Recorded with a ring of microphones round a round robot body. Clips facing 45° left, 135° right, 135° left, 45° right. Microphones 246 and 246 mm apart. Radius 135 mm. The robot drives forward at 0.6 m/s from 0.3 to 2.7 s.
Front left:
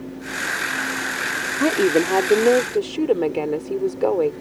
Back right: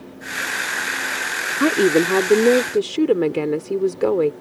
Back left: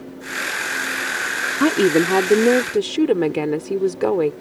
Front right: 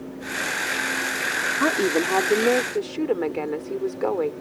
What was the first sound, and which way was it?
A woman speaking, 155° left.